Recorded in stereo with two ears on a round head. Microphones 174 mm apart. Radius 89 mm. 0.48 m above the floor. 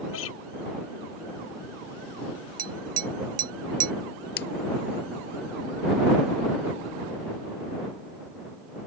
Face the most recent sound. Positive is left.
turn(degrees=60)  # may be behind; listen again after turning